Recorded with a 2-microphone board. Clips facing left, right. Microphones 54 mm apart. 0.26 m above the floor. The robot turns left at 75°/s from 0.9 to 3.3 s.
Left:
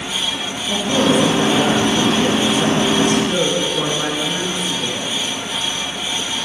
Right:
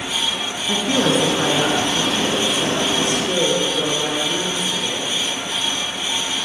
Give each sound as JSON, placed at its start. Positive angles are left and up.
{"t": 0.7, "sound": "a woman speaking", "azimuth_deg": -90, "distance_m": 3.0}